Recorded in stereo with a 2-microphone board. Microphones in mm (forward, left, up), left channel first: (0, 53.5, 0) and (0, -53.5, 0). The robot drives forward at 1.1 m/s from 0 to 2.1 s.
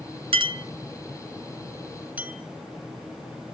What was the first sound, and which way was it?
A clink, 60° right (ahead or behind).